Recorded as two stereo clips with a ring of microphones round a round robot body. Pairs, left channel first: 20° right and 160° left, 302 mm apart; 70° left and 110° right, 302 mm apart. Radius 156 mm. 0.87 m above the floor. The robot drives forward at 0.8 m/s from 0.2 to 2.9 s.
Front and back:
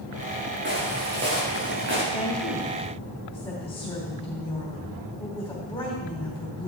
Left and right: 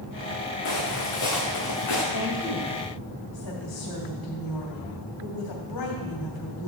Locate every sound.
0.7 s footsteps: 100° left, 5 m; by 2.0 s 105° left, 5.5 m
2.1 s a woman speaking: 50° left, 3 m; by 6.7 s 60° left, 2.5 m